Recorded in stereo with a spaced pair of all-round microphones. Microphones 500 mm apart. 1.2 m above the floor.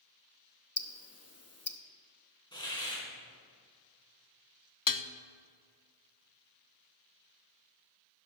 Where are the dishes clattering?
40° left (ahead or behind), 0.5 m.